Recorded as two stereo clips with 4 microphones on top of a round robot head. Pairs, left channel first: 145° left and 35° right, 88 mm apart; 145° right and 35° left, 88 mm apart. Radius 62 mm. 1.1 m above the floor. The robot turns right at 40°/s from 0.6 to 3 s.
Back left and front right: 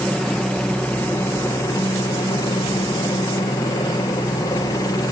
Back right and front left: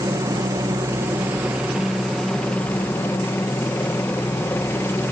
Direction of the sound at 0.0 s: 65° left.